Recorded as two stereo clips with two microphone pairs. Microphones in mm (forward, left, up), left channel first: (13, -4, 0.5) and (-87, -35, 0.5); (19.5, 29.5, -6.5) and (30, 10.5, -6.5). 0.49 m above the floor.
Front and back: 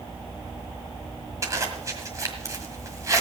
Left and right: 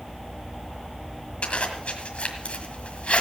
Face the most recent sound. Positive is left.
turn(degrees=140)